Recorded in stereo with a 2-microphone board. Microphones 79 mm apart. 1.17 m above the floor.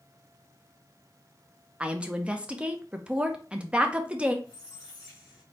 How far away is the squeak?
About 2.5 m.